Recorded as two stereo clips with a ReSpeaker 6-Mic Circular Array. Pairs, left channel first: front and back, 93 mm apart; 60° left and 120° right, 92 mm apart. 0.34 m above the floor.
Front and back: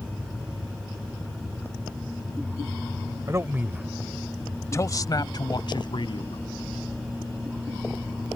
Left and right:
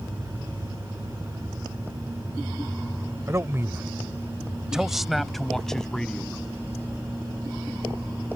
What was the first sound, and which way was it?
A man speaking, 155° right.